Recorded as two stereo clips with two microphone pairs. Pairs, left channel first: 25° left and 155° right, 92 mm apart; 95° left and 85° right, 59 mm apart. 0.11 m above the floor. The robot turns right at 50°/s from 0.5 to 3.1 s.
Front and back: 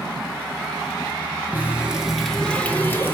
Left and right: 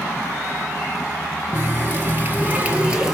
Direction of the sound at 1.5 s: 90° right.